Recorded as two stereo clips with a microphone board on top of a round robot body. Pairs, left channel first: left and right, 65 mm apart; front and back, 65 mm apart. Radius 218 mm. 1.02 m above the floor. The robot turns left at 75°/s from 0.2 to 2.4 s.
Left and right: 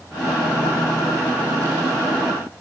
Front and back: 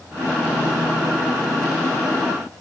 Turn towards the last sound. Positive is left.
No sound to turn to.